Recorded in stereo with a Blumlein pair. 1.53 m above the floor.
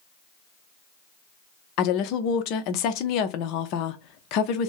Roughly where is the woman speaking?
Ahead left.